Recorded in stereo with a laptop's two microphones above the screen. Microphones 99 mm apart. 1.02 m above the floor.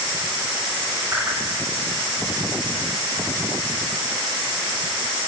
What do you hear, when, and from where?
1.1 s a whoosh: 25° right (ahead or behind), 7.5 m